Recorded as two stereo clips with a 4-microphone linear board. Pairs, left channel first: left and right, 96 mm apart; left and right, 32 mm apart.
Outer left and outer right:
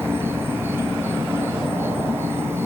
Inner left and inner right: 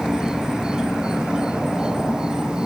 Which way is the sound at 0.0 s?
25° right (ahead or behind).